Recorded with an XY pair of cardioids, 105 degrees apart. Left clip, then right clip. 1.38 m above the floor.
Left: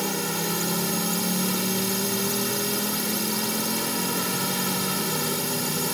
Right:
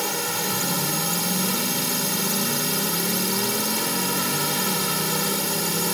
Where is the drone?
20° right.